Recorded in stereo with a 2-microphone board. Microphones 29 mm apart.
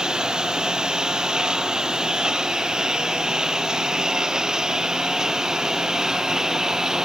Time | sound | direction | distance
0.0 | a lawn mower | 25° right (ahead or behind) | ?